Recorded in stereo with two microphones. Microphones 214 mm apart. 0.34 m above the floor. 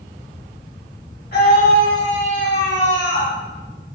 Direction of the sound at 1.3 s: 50° left (ahead or behind).